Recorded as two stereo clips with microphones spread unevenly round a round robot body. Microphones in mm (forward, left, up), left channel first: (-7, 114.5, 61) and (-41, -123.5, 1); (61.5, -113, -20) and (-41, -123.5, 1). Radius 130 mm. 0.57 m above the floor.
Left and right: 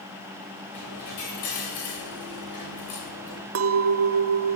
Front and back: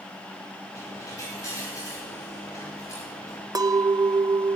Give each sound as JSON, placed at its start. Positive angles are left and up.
{"t": 0.7, "sound": "a dropped coin", "azimuth_deg": 85, "distance_m": 8.5}
{"t": 3.5, "sound": "a clink", "azimuth_deg": -120, "distance_m": 1.2}